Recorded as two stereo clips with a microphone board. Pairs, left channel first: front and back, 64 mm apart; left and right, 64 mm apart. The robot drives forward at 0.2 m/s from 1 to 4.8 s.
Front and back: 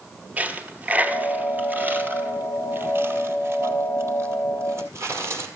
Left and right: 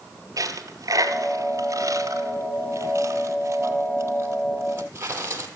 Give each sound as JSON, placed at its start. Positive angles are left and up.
{"t": 0.4, "sound": "a dropped coin", "azimuth_deg": -115, "distance_m": 1.2}